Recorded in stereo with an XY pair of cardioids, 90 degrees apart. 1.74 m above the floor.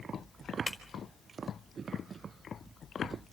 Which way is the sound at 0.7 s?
5° left.